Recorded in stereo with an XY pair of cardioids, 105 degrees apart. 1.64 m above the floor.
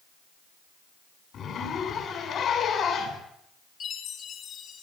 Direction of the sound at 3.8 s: 65° left.